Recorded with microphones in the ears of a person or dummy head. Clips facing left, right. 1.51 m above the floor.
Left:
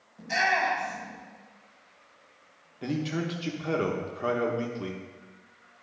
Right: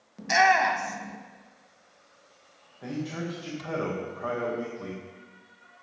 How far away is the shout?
About 1.0 m.